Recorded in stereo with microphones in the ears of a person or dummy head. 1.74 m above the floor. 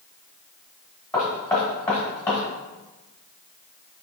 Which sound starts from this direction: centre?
Knocking, at 1.1 s.